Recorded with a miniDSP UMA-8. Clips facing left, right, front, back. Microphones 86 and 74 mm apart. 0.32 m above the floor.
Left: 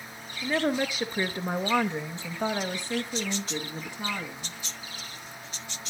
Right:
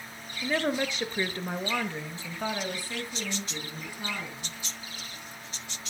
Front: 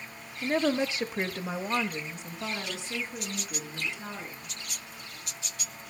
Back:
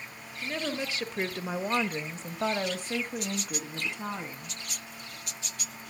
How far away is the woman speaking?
About 1.1 m.